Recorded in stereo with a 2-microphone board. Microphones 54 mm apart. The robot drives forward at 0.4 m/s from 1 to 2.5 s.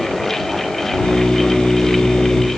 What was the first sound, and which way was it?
Only background noise.